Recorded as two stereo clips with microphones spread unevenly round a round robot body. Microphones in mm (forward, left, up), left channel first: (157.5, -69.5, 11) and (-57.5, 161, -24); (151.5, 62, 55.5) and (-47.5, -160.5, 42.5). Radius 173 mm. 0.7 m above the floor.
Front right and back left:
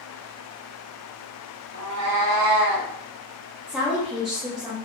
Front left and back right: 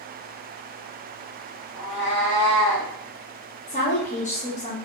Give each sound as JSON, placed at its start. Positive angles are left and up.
{"t": 1.7, "sound": "a cat meowing", "azimuth_deg": 95, "distance_m": 0.9}
{"t": 3.7, "sound": "a woman speaking", "azimuth_deg": 65, "distance_m": 0.5}